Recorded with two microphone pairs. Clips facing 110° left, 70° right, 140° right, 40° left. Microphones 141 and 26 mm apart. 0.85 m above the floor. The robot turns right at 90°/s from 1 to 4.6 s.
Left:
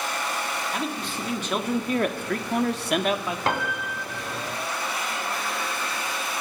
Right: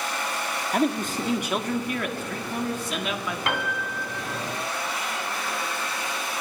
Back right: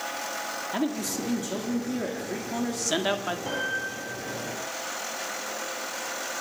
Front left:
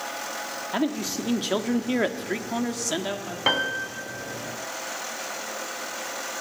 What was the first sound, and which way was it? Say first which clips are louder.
A man speaking: right 6 dB, front left 3 dB; 35° right.